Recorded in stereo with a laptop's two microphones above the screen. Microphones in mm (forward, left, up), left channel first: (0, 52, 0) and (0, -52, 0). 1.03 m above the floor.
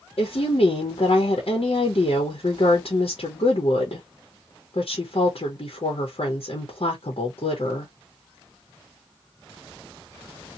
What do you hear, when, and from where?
0.2 s a woman speaking: 65° left (ahead or behind), 0.9 m